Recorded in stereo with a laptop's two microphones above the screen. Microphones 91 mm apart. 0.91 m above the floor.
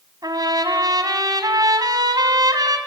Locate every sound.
0.2 s a trumpet: 45° right (ahead or behind), 2.5 m